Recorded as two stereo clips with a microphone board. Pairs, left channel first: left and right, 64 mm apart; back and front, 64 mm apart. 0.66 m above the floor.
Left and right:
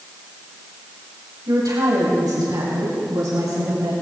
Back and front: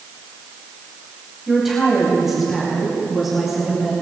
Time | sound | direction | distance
1.5 | a woman speaking | 85° right | 3.5 m